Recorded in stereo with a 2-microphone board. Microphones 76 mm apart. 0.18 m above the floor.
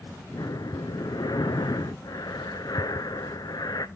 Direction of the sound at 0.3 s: 60° left (ahead or behind).